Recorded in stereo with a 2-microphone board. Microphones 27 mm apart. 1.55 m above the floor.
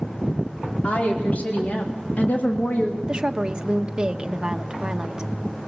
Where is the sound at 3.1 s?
30° right (ahead or behind), 1.4 m.